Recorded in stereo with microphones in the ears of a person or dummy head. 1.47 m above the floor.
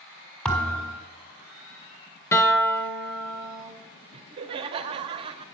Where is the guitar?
15° left (ahead or behind), 0.9 m.